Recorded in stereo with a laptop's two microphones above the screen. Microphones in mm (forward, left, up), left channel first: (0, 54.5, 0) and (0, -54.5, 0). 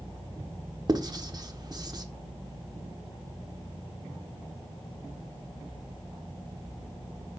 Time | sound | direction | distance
0.9 | writing | 40° right (ahead or behind) | 1.3 m